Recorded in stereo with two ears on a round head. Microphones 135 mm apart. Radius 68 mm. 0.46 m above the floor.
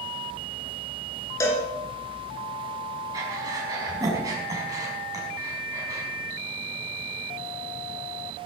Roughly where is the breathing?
Right.